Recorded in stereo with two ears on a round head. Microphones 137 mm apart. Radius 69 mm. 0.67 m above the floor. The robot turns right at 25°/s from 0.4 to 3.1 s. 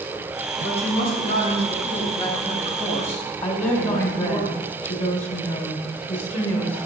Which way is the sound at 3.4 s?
45° left (ahead or behind).